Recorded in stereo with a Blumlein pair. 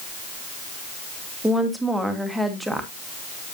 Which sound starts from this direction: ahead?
A woman speaking, at 1.4 s.